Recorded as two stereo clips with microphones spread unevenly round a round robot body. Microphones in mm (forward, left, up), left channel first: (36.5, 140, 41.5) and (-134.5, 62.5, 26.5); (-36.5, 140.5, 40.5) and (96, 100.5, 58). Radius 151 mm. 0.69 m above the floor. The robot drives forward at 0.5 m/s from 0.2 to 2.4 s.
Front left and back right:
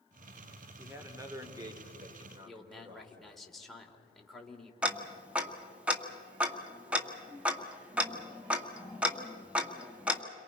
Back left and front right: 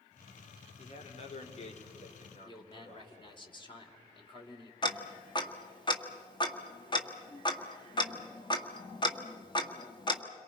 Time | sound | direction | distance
0.8 | a man speaking | 130° left | 2.5 m
2.5 | a man speaking | 115° left | 2.5 m
4.8 | ticking | 125° left | 1.8 m